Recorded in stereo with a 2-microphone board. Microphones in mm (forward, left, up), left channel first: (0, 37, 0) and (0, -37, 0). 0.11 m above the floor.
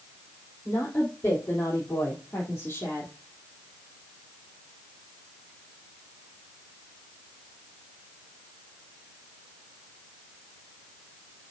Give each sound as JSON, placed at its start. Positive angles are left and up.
{"t": 0.7, "sound": "a woman speaking", "side_deg": 30, "distance_m": 5.0}